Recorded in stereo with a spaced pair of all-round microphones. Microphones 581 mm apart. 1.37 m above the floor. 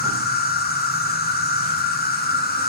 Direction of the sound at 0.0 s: 15° left (ahead or behind).